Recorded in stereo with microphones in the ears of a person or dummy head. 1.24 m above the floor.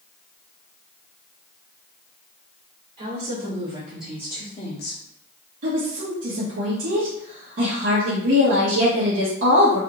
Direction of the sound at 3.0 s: 35° right (ahead or behind).